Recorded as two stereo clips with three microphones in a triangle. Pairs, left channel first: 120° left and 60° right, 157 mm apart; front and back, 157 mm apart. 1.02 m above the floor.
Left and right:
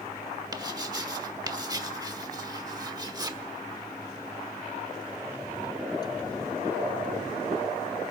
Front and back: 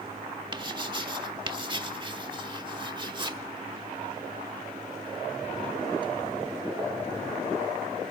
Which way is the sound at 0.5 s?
120° right.